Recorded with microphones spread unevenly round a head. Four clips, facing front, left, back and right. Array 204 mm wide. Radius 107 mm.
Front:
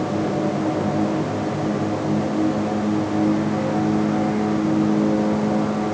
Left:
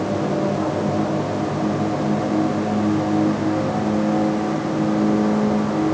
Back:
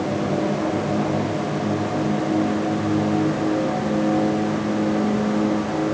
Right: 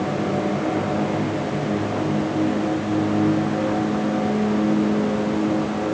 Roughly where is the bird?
I don't hear a bird.